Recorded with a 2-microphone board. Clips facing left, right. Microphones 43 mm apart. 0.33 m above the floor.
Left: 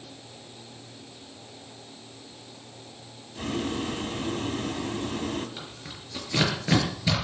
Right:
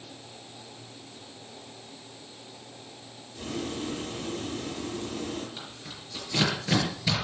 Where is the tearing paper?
20° left (ahead or behind), 5.5 m.